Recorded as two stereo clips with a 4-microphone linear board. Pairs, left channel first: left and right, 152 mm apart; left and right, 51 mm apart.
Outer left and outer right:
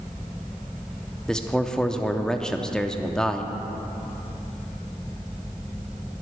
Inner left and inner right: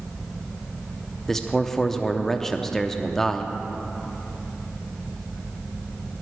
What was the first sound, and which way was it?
A man speaking, 5° left (ahead or behind).